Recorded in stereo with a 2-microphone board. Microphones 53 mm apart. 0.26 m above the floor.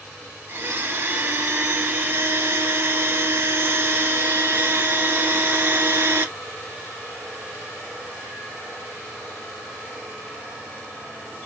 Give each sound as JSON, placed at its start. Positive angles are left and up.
{"t": 0.5, "sound": "a blender", "side_deg": -45, "distance_m": 0.6}